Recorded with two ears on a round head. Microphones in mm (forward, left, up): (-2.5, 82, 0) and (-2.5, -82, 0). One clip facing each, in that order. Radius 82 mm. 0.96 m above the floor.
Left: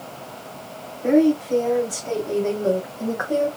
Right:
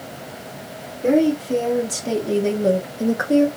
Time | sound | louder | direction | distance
1.0 | a woman speaking | even | 50° right (ahead or behind) | 1.7 m